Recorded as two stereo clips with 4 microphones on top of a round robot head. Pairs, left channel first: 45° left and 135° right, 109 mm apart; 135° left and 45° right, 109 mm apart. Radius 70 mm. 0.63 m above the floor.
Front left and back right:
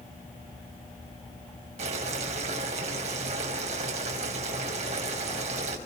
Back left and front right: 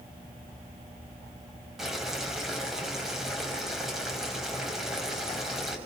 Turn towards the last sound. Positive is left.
turn(degrees=-130)